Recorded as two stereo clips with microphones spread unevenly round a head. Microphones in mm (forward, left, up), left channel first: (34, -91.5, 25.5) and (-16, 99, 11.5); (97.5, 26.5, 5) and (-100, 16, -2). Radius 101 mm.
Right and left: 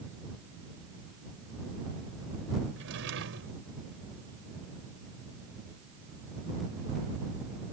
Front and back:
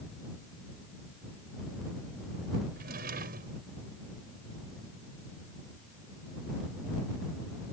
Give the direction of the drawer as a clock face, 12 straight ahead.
7 o'clock.